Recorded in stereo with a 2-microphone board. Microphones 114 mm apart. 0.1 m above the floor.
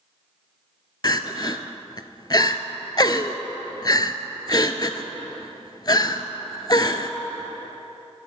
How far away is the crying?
About 0.5 m.